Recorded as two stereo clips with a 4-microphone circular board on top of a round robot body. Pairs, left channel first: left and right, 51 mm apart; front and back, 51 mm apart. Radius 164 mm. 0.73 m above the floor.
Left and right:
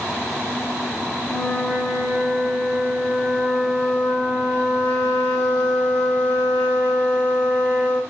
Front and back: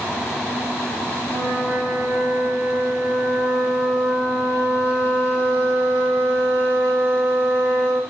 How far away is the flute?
About 1.8 m.